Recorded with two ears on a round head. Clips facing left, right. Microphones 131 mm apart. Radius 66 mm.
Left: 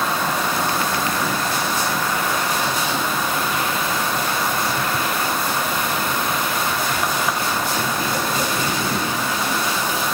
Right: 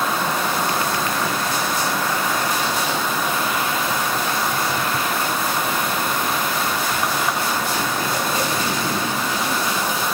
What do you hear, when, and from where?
Only background noise.